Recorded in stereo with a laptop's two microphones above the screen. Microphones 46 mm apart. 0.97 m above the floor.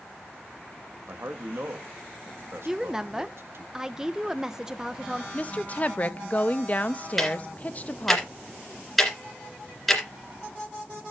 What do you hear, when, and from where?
1.1 s a man speaking: 65° right (ahead or behind), 1.5 m
2.6 s a woman speaking: 10° right (ahead or behind), 0.6 m
5.3 s a woman speaking: 35° left (ahead or behind), 0.8 m
7.2 s ticking: 5° left (ahead or behind), 2 m